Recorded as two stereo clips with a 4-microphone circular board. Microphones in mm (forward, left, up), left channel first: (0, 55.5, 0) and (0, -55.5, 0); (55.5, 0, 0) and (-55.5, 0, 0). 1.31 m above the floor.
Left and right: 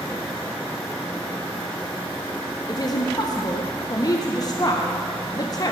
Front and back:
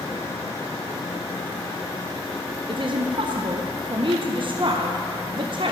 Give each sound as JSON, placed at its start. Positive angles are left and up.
{"t": 2.7, "sound": "a woman speaking", "azimuth_deg": 140, "distance_m": 0.7}